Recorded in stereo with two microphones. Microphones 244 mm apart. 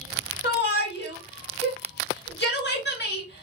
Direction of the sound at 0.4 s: 45° left (ahead or behind).